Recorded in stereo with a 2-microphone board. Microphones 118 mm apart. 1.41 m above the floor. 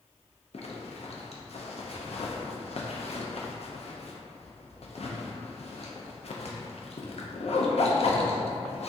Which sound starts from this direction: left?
A zipper, at 0.5 s.